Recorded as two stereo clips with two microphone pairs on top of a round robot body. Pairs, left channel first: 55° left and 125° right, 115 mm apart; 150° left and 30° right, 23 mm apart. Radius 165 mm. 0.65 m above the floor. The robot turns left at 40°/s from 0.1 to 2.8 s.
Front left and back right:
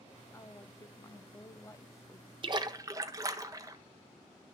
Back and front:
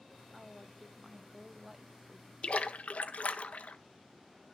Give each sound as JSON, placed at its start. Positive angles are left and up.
{"t": 0.3, "sound": "a woman speaking", "azimuth_deg": 85, "distance_m": 1.2}
{"t": 2.4, "sound": "a splash", "azimuth_deg": -175, "distance_m": 1.1}